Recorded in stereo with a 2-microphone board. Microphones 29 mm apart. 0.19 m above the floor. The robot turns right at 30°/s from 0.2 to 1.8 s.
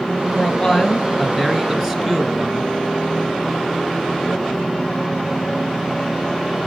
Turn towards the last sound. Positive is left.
turn(degrees=-160)